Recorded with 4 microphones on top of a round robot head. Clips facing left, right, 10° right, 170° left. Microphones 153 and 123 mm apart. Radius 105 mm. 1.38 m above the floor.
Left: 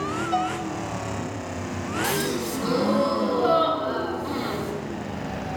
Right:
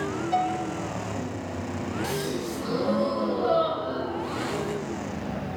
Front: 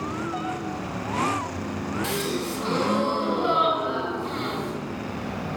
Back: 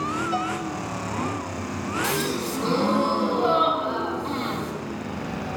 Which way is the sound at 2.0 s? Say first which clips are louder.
Left 5 dB, back 2 dB; 115° left.